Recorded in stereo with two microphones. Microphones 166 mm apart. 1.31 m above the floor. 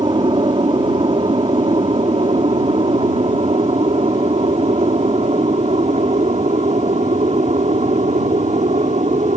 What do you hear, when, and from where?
0.0 s an aircraft: 30° right (ahead or behind); by 9.4 s 45° right (ahead or behind)